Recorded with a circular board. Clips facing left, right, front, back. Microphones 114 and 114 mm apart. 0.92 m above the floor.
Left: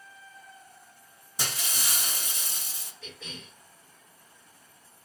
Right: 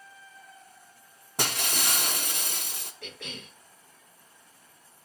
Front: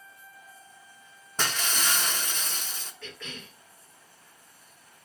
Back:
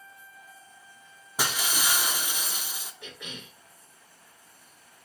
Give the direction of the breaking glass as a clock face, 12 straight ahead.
3 o'clock.